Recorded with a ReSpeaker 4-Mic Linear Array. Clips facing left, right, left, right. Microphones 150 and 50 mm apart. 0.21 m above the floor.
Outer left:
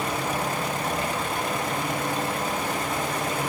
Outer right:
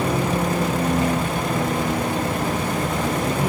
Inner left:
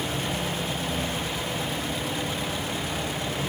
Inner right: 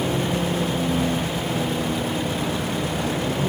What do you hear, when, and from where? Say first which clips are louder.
0.0 s a vehicle: outer right 6 dB, inner right 6 dB; 85° right